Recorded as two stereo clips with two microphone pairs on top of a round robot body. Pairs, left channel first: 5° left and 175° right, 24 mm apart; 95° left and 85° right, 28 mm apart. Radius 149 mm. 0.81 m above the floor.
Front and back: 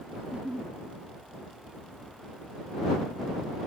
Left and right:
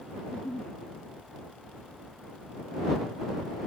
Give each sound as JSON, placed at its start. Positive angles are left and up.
{"t": 0.2, "sound": "a giggle", "azimuth_deg": 145}